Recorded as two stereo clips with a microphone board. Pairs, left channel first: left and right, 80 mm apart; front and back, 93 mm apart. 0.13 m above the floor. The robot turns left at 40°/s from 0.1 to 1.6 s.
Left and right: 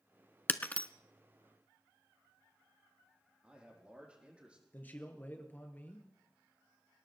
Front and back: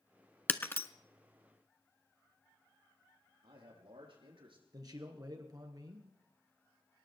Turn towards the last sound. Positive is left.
turn(degrees=150)